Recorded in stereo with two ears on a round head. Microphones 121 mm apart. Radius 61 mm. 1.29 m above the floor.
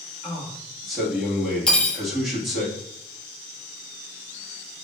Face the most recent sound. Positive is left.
turn(degrees=10)  # may be behind; listen again after turning